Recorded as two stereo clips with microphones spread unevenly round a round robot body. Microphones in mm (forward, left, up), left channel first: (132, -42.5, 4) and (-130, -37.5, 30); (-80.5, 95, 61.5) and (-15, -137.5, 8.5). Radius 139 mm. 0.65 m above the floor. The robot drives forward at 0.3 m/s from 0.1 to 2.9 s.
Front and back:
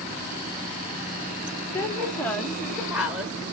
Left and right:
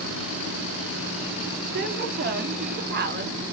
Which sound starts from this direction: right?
A woman speaking, at 1.7 s.